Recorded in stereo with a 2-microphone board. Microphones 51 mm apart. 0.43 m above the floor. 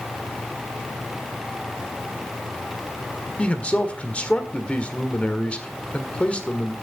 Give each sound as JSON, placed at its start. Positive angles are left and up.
{"t": 3.4, "sound": "a man speaking", "side_deg": 25, "distance_m": 1.6}